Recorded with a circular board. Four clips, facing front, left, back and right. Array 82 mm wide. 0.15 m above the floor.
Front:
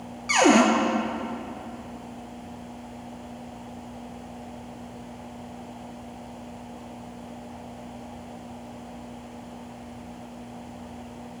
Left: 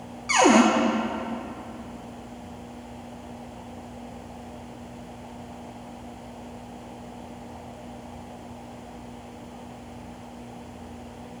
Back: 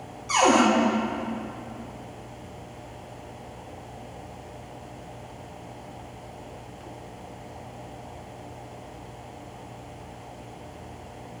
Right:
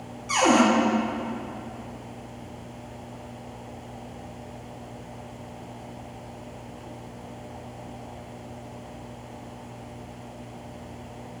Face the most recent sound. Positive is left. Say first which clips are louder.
# left 2 dB, front 1 dB
turn(degrees=40)